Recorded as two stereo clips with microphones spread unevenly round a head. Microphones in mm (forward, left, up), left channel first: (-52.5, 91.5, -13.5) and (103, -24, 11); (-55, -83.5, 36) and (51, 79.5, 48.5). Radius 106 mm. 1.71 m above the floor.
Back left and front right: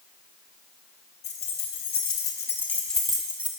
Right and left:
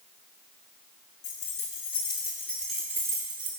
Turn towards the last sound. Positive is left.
turn(degrees=25)